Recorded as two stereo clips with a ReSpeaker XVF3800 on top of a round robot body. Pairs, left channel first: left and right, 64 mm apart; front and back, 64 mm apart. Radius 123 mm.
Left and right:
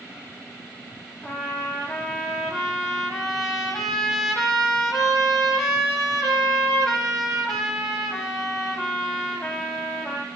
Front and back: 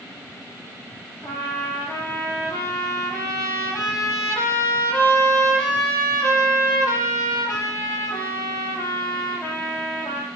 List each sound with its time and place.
1.2 s a trumpet: straight ahead, 6.5 m